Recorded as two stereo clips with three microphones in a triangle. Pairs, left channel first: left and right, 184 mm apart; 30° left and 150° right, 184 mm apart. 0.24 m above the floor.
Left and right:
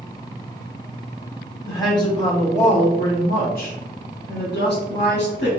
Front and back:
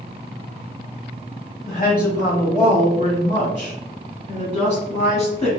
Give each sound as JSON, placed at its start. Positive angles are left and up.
{"t": 1.7, "sound": "a woman speaking", "azimuth_deg": 20, "distance_m": 1.3}